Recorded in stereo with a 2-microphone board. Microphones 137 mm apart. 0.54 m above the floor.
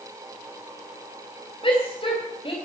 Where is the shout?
40° left (ahead or behind), 3.5 m.